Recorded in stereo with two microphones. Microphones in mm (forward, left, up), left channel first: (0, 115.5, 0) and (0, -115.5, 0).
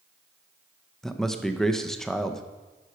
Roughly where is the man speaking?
Centre.